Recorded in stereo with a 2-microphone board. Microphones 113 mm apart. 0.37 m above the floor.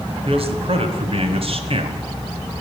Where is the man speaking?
60° right (ahead or behind), 2 m.